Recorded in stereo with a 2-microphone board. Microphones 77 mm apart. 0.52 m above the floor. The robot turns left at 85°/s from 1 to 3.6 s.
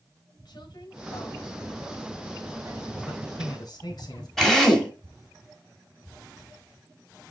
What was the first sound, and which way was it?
A woman speaking, 95° left.